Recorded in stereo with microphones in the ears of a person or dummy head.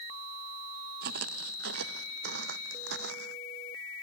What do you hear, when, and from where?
1.0 s footsteps: 60° right (ahead or behind); by 3.4 s 65° right (ahead or behind)